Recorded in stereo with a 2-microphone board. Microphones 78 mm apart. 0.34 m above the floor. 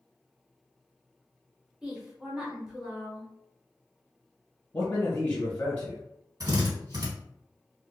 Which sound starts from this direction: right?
A drill, at 6.4 s.